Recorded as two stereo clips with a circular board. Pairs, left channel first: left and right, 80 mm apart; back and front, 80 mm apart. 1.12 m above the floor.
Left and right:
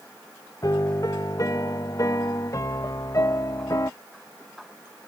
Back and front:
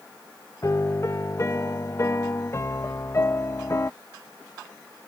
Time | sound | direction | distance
0.6 | a piano | 130° left | ?